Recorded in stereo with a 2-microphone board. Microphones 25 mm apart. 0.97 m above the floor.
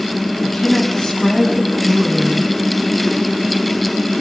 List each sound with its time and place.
0.4 s a woman speaking: 35° left (ahead or behind), 7 m; by 2.5 s 20° left (ahead or behind), 8 m